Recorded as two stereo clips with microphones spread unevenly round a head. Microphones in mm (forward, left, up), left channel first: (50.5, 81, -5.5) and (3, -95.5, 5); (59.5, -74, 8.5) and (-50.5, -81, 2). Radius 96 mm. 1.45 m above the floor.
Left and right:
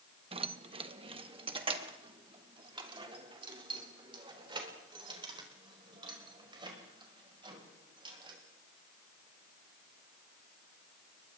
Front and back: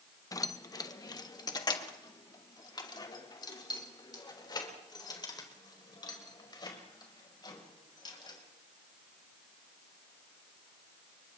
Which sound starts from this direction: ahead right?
Keys jangling, at 0.3 s.